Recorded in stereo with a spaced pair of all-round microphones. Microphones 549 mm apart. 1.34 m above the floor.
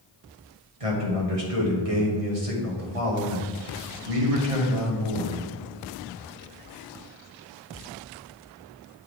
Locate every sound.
0.8 s a man speaking: 80° right, 2 m